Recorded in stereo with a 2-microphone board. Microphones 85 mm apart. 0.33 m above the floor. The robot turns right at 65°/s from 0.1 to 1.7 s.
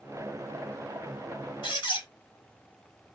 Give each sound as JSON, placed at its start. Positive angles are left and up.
{"t": 1.6, "sound": "a squeak", "side_deg": 65, "distance_m": 1.9}